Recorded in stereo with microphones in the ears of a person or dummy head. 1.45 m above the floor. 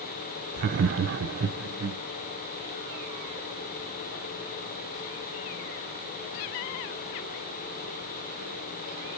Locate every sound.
0.6 s laughter: 50° right (ahead or behind), 0.5 m; by 2.0 s 90° right, 1.4 m